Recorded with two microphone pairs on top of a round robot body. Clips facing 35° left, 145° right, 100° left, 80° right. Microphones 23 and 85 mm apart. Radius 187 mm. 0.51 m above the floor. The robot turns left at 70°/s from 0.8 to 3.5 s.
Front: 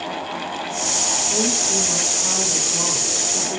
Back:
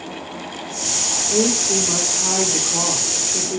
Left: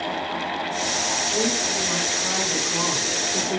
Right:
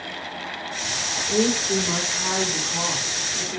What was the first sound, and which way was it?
A woman speaking, 70° right.